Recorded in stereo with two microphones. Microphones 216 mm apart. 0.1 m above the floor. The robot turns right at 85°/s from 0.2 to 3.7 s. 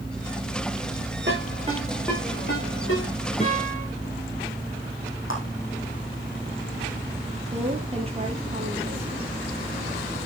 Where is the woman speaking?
30° right (ahead or behind), 2.5 m.